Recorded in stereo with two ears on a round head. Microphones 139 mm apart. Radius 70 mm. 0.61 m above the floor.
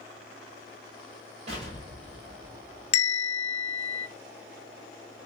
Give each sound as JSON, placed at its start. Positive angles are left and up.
{"t": 1.5, "sound": "an explosion", "side_deg": -45, "distance_m": 1.5}
{"t": 2.9, "sound": "a bell", "side_deg": 40, "distance_m": 0.6}